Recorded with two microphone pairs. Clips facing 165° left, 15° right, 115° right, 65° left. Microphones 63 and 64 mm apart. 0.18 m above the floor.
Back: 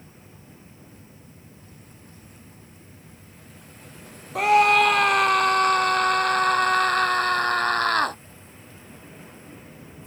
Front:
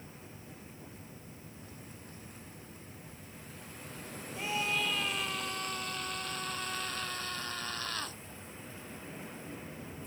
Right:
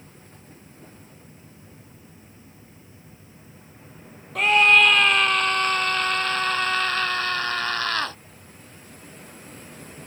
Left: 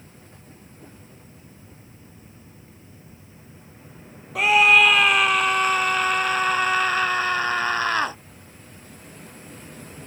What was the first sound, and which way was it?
A scream, 150° left.